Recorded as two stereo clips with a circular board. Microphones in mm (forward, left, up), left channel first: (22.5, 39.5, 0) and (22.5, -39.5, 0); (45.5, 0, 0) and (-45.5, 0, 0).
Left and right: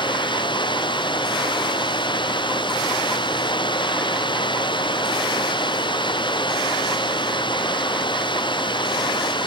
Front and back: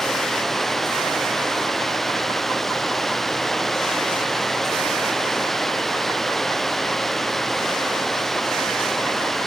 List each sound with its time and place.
0.0 s running water: 90° left